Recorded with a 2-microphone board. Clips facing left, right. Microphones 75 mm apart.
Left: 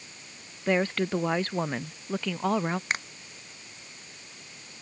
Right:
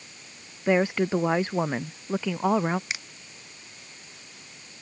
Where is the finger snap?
45° left (ahead or behind).